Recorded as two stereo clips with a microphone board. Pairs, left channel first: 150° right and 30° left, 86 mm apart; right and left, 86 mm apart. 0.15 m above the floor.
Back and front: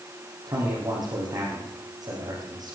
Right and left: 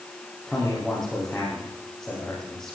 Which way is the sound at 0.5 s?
5° right.